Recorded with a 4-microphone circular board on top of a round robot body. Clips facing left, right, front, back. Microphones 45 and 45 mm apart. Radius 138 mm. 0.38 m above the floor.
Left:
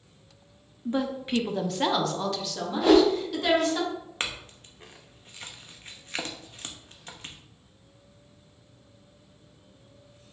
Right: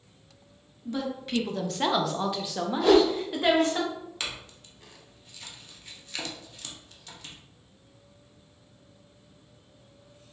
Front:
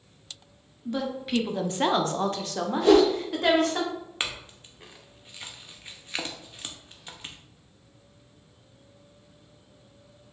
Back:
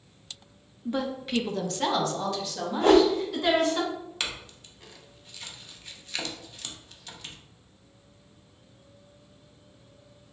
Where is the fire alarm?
I don't hear a fire alarm.